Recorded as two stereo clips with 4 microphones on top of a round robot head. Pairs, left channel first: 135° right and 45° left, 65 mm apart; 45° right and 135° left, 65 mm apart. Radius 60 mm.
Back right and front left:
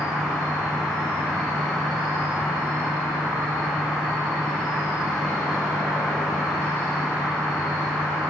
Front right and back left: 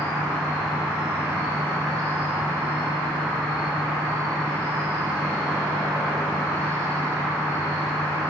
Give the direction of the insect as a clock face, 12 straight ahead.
8 o'clock.